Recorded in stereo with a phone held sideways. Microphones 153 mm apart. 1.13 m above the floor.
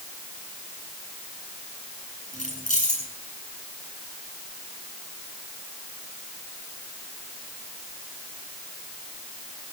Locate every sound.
2.3 s keys jangling: 55° left (ahead or behind), 7.5 m